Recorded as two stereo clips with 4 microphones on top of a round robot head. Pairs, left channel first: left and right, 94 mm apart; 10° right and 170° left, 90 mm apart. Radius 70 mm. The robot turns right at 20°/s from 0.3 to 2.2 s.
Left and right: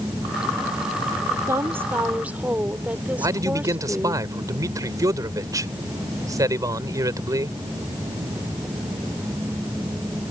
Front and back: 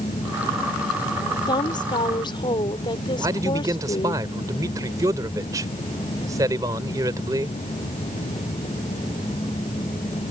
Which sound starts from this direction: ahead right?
A woman speaking, at 1.5 s.